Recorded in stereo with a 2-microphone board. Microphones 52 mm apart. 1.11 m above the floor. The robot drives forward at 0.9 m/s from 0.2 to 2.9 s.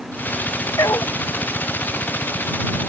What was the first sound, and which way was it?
A dog barking, 80° left.